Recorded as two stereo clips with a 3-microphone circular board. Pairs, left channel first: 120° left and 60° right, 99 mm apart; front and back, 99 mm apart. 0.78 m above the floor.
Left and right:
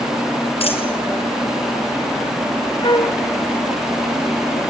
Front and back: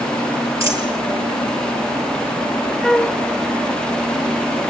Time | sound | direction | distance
0.6 | a dropped coin | 120° left | 6.5 m
2.8 | a flute | 85° left | 1.3 m